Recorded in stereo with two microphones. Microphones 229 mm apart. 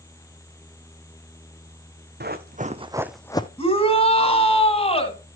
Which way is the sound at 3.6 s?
25° left (ahead or behind).